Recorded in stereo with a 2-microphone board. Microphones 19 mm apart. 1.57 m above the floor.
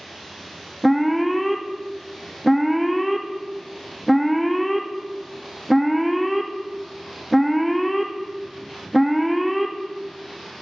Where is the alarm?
Centre (ahead or behind), 0.5 m.